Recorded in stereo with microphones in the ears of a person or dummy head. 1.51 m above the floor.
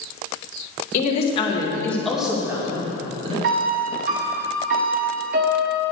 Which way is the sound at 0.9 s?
45° left (ahead or behind).